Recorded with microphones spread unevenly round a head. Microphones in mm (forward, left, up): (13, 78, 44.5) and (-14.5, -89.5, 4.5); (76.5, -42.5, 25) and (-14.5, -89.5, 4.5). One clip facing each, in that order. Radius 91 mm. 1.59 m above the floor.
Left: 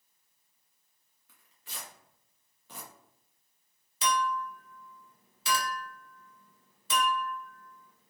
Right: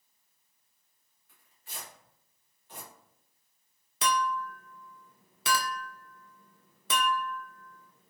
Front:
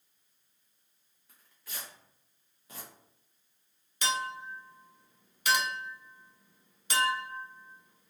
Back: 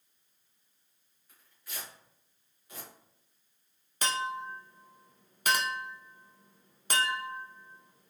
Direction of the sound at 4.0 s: 125° right.